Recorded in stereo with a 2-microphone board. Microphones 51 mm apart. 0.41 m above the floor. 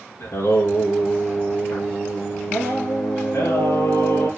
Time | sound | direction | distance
0.2 | singing | 65° left (ahead or behind) | 3 m